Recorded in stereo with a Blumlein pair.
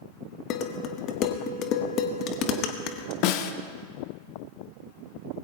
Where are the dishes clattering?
35° left, 1.3 m.